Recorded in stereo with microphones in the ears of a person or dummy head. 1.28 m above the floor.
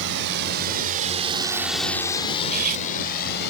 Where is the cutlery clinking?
50° right (ahead or behind).